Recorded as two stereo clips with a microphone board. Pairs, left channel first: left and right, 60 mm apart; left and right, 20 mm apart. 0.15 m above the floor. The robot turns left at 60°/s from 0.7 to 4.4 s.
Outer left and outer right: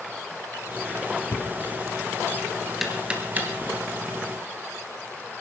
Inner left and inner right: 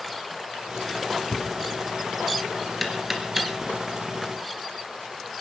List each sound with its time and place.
1.3 s knocking: 60° left (ahead or behind), 2.5 m; by 3.7 s 45° right (ahead or behind), 2.5 m